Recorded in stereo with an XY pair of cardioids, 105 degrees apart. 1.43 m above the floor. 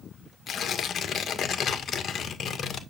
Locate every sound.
0.5 s tearing paper: 50° left, 1.9 m